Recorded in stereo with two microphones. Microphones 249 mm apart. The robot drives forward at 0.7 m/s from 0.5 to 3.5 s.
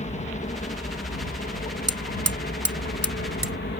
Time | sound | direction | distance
0.0 | a helicopter | 30° left (ahead or behind) | ?
1.9 | hammering | 70° right (ahead or behind) | ?